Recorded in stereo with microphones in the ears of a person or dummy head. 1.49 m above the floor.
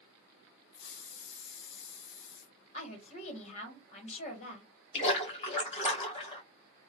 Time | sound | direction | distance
0.7 | a hiss | 65° left (ahead or behind) | 1.0 m
2.7 | a woman speaking | 45° left (ahead or behind) | 1.6 m
4.9 | a splash | 40° left (ahead or behind) | 1.4 m